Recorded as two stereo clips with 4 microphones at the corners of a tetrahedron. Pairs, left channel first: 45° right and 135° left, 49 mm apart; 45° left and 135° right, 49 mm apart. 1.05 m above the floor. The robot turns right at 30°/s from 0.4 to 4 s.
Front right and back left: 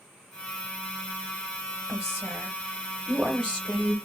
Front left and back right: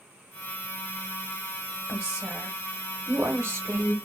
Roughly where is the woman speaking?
Behind.